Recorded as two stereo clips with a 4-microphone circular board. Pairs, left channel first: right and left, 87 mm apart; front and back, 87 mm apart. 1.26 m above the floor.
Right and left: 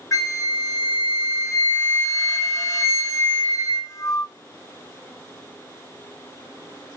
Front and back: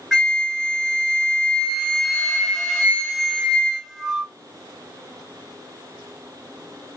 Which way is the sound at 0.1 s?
85° right.